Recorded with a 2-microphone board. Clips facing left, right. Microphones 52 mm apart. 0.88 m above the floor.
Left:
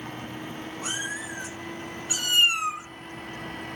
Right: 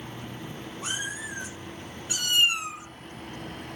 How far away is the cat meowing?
About 3.5 m.